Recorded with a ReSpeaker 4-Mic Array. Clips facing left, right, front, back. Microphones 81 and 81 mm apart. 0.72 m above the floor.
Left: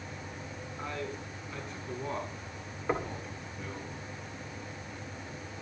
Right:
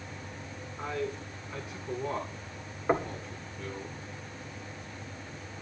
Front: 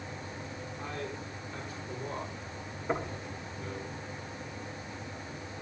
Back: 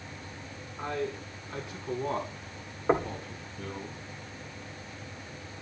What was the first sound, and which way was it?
A man speaking, 170° right.